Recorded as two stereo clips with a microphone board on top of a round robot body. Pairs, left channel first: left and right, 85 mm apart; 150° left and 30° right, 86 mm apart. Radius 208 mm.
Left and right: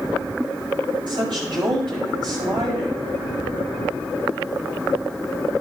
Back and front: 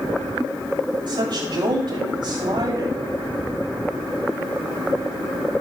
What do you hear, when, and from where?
1.1 s a woman speaking: 65° right, 7 m